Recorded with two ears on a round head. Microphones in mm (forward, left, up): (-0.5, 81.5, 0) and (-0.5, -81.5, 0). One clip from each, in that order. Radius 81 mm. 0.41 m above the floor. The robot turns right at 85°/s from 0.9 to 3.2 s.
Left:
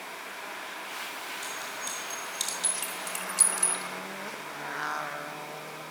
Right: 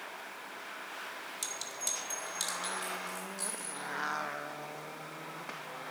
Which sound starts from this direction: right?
A clink, at 1.4 s.